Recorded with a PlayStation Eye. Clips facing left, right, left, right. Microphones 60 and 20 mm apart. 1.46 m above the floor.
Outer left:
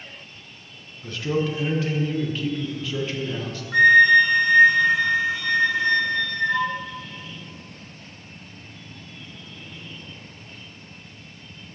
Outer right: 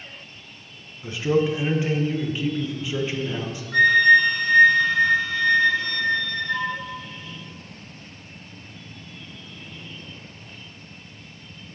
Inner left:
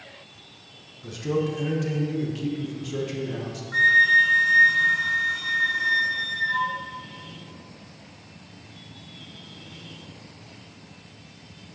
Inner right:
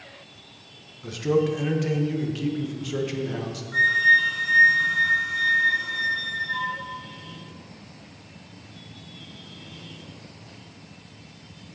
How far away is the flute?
About 1.3 m.